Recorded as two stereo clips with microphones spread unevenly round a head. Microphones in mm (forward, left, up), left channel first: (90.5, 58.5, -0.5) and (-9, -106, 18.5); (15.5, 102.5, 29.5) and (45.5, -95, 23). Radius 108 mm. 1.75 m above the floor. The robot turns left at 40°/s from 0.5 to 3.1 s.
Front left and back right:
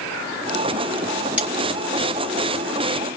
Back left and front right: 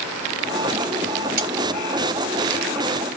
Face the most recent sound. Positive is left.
turn(degrees=-110)